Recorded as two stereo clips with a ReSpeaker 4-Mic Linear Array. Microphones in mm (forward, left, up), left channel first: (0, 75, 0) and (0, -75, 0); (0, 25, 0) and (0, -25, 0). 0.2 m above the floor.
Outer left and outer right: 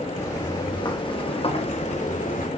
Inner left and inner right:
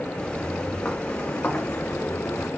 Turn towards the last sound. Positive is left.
turn(degrees=65)  # may be behind; listen again after turning